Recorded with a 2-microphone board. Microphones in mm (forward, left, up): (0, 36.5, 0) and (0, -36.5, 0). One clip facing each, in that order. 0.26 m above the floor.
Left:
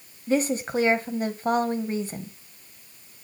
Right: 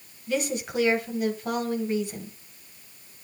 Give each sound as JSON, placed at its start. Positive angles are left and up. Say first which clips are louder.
{"t": 0.3, "sound": "a woman speaking", "louder": "left 4 dB", "side_deg": 35, "distance_m": 1.7}